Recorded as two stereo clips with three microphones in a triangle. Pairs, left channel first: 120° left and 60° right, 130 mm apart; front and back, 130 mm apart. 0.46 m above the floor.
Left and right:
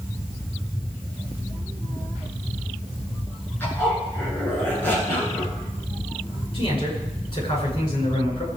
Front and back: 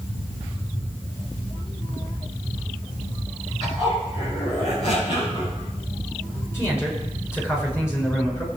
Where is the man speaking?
70° left, 6.5 m.